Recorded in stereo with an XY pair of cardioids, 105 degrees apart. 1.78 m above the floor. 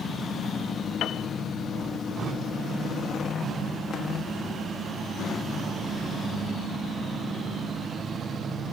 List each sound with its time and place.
1.0 s a piano: 70° left, 1.0 m